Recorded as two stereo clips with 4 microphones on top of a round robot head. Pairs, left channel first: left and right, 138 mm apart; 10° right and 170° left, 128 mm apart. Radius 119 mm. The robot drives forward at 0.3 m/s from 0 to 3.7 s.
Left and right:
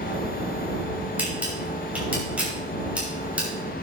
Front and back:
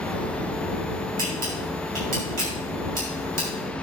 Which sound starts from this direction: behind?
A camera shutter, at 1.2 s.